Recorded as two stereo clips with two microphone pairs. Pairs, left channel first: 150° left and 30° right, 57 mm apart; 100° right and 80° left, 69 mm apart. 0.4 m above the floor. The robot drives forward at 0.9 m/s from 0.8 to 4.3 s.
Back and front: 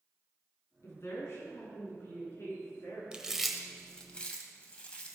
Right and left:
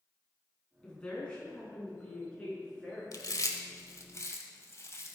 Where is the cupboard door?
I don't hear a cupboard door.